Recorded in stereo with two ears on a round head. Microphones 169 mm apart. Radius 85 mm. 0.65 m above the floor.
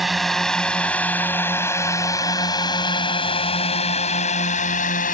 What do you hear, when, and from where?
0.0 s a drone: centre (ahead or behind); by 5.2 s 45° left (ahead or behind)